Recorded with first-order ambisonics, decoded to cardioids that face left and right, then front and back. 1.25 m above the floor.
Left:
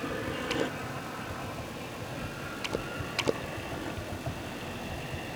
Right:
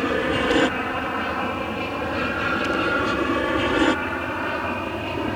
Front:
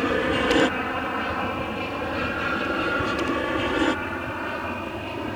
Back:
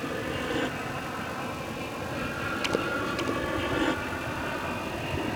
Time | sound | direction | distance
0.0 | an aircraft | 50° right | ?